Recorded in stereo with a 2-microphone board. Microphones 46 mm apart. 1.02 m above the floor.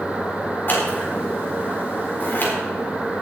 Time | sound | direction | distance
0.7 | scissors | 45° left (ahead or behind) | 4 m